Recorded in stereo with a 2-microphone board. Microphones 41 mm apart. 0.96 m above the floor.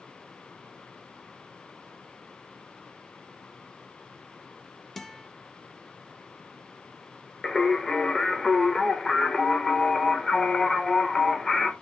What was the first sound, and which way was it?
A guitar, 5° left (ahead or behind).